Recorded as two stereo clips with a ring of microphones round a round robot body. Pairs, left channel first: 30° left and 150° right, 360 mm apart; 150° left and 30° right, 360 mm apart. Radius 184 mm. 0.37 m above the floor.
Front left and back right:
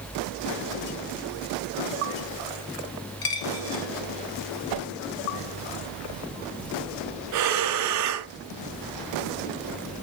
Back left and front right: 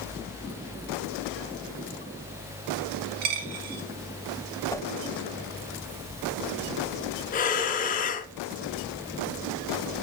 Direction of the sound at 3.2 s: 25° right.